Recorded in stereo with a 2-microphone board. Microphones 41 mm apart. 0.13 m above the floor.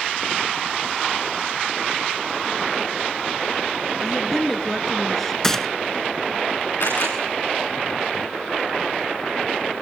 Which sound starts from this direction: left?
A camera shutter, at 6.8 s.